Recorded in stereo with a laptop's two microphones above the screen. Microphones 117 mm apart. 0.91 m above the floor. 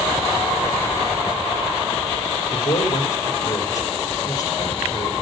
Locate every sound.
2.5 s a man speaking: 30° left (ahead or behind), 2.5 m